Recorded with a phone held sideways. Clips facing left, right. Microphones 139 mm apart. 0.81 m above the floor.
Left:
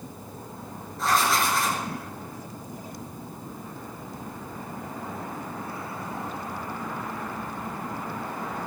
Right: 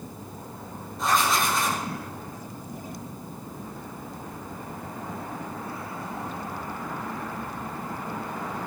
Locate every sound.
1.0 s writing: 20° right (ahead or behind), 5.5 m